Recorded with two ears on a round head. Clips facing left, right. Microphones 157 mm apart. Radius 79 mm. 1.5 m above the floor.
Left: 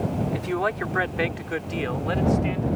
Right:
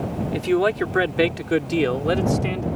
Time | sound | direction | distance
0.3 | a man speaking | 35° right (ahead or behind) | ?